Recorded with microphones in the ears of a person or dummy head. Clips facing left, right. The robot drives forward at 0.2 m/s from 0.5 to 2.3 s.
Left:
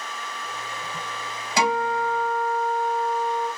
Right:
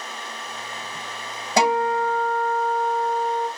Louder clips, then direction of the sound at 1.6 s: Right 3 dB; 40° right (ahead or behind).